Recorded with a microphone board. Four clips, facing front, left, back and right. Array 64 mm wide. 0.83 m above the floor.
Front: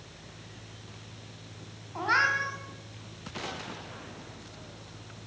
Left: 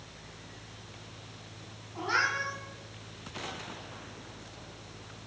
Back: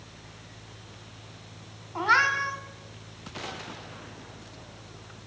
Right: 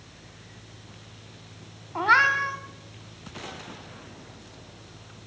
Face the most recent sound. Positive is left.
turn(degrees=-105)